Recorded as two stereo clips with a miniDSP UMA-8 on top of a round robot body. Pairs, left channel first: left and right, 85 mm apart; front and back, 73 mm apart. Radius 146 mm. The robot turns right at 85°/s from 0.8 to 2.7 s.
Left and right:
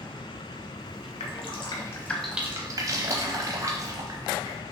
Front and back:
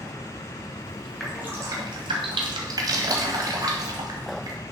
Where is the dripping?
90° left, 0.8 m; by 4.6 s 145° right, 0.8 m.